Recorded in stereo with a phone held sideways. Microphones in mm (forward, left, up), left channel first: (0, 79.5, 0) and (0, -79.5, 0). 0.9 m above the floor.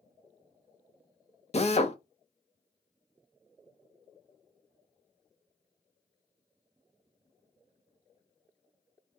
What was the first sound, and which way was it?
A drill, 45° left (ahead or behind).